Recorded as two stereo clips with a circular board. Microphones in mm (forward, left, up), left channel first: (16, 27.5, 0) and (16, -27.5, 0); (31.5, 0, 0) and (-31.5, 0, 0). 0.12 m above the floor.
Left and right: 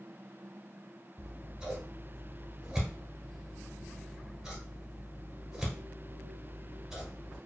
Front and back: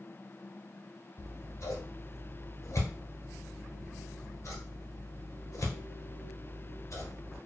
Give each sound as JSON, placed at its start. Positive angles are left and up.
{"t": 1.2, "sound": "scissors", "azimuth_deg": -10, "distance_m": 1.1}